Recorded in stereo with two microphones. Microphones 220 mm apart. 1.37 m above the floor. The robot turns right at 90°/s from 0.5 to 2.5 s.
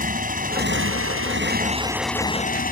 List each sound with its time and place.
0.0 s a motorcycle: 140° right; by 2.7 s 40° left